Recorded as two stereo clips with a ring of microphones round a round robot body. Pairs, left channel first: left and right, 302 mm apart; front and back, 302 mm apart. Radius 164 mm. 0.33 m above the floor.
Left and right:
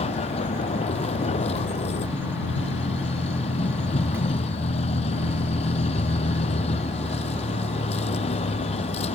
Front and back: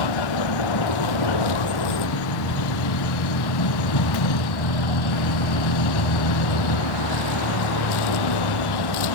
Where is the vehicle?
15° left.